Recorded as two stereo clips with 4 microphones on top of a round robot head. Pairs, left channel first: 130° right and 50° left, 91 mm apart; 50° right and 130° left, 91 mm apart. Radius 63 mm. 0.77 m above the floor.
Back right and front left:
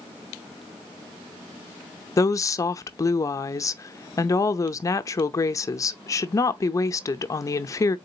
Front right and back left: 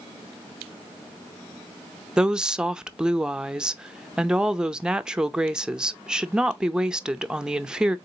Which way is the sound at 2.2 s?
155° right.